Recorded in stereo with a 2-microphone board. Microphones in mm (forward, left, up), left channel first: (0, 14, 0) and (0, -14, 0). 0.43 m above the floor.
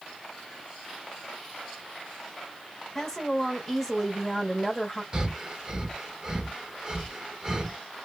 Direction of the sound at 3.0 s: 10° left (ahead or behind).